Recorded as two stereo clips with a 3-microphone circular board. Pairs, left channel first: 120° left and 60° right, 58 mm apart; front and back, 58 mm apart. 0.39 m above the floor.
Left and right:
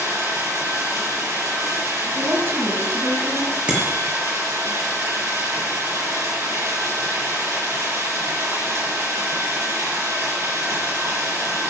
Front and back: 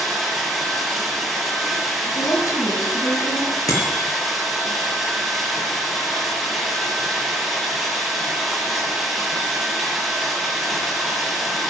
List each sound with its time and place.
0.0 s running water: 100° right, 8.5 m
2.1 s a woman speaking: 15° right, 3 m
3.7 s a bicycle bell: 10° left, 5.5 m